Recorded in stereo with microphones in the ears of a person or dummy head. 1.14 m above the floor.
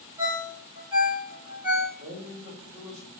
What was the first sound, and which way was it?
A ringtone, 15° right (ahead or behind).